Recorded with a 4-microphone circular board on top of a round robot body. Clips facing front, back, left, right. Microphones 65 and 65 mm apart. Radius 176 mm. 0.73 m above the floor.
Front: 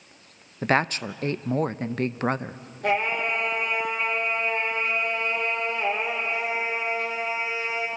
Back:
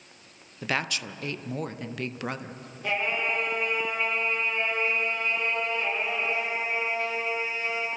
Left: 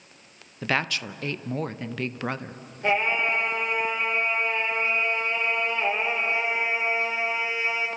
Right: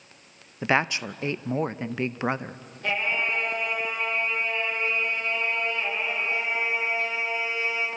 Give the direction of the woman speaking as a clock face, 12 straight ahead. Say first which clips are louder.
Front 7 dB, right 3 dB; 1 o'clock.